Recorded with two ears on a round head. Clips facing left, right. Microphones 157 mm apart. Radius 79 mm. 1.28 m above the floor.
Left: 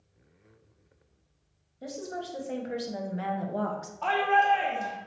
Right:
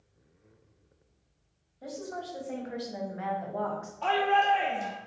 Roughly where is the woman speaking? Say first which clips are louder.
Left 1 dB; left.